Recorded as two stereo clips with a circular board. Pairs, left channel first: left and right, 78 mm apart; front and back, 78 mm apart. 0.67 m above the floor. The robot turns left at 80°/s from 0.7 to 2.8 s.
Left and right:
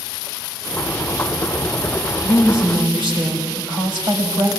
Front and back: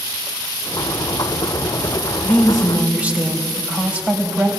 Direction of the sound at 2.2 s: 65° right.